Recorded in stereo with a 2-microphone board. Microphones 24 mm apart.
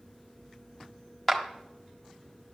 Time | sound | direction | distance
1.3 | a clap | 10° left (ahead or behind) | 1.3 m